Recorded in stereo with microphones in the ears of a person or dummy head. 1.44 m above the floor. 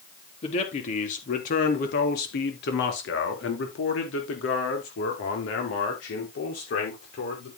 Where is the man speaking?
45° left (ahead or behind), 4 m; by 7.5 s 60° left (ahead or behind), 6 m.